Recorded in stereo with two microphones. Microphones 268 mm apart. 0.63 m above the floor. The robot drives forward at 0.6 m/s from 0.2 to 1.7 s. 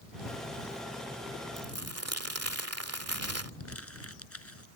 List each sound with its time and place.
1.6 s crumpling: 65° right (ahead or behind)
3.6 s crumpling: 60° left (ahead or behind)